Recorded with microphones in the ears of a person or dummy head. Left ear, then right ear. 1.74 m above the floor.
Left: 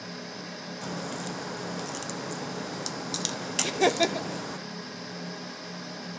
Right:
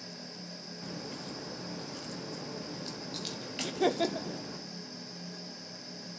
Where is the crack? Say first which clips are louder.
Left 7 dB; 55° left (ahead or behind), 1.1 m.